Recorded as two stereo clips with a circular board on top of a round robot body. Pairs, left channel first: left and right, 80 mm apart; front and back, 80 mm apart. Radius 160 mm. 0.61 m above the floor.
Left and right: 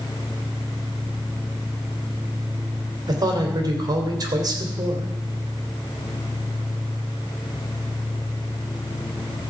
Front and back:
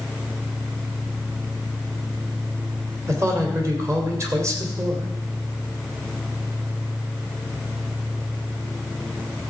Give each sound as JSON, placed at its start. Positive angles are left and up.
{"t": 3.1, "sound": "a man speaking", "azimuth_deg": -130, "distance_m": 2.5}